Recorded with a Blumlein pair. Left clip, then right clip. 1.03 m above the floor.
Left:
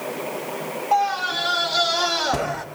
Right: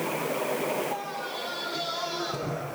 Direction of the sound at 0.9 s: 55° left.